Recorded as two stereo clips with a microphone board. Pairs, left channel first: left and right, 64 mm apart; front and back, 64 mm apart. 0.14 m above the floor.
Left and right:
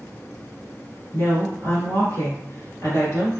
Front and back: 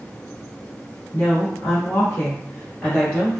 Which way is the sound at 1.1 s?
45° left.